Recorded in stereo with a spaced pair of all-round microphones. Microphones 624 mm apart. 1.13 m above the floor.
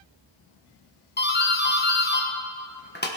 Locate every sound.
1.2 s a doorbell: 15° left (ahead or behind), 1.4 m